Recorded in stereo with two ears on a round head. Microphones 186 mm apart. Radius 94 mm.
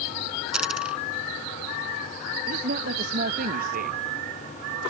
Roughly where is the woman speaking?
Right.